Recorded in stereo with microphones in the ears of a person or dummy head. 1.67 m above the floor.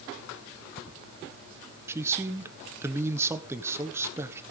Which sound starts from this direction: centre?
A man speaking, at 1.9 s.